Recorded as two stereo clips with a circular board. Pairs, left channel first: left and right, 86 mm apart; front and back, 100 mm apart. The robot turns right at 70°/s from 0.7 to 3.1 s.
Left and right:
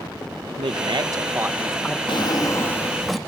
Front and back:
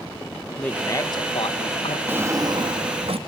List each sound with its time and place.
0.6 s a man speaking: 75° right, 1.1 m; by 2.0 s 15° left, 1.1 m
2.1 s a drawer: 110° left, 1.1 m; by 3.2 s straight behind, 1.1 m